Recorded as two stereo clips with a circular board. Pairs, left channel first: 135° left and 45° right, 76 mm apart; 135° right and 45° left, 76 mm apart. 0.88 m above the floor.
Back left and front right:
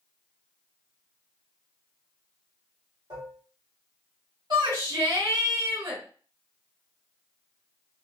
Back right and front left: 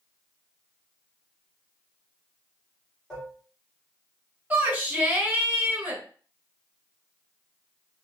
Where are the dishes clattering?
55° right, 1.6 m.